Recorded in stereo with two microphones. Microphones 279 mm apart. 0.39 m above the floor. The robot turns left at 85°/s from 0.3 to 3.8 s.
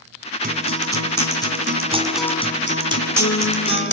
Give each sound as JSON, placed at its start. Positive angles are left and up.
{"t": 0.4, "sound": "a guitar", "azimuth_deg": -30, "distance_m": 2.5}